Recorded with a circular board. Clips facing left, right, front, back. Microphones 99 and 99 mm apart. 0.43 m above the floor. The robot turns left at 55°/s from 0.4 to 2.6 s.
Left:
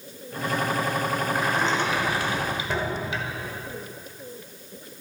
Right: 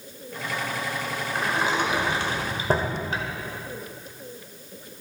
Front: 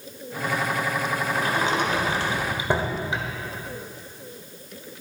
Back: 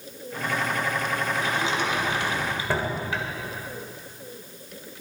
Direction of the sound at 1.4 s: 5° left.